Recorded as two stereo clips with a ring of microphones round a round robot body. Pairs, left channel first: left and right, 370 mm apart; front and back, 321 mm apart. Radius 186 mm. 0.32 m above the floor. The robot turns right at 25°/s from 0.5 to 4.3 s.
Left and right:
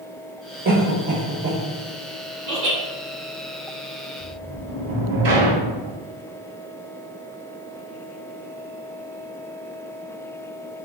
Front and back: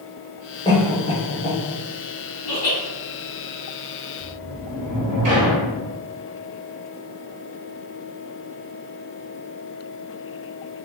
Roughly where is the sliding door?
Behind right.